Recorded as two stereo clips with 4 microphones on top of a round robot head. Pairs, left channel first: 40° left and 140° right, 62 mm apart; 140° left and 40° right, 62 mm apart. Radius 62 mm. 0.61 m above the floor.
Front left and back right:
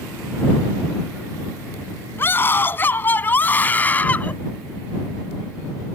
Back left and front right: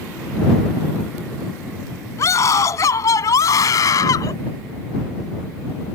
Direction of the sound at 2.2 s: 95° left.